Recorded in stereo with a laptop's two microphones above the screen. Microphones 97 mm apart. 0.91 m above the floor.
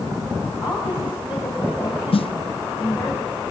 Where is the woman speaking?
50° left (ahead or behind), 5.5 m.